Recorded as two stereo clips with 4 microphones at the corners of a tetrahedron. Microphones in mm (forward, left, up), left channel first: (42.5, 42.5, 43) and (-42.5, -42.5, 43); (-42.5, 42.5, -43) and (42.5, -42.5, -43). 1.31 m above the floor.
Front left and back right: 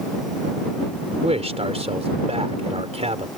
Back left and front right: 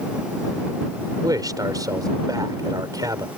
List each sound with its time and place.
1.2 s a man speaking: 105° right